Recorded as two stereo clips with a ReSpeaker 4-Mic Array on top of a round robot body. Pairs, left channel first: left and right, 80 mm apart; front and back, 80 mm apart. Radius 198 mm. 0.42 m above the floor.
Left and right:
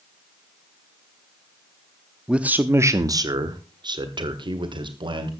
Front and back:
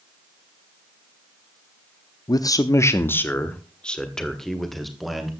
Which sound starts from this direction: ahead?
A man speaking, at 2.3 s.